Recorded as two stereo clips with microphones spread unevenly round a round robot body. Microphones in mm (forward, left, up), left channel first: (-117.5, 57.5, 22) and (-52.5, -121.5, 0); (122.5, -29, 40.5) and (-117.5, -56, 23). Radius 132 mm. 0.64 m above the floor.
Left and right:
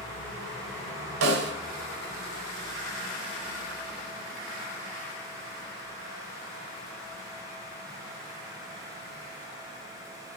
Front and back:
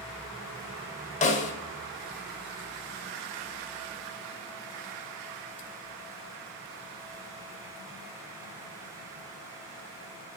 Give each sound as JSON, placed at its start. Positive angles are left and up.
{"t": 1.2, "sound": "a snare drum", "azimuth_deg": -55, "distance_m": 1.3}